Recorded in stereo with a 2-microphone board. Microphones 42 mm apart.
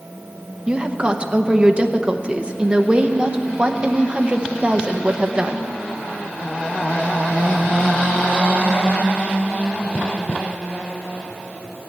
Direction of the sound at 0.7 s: 30° right (ahead or behind).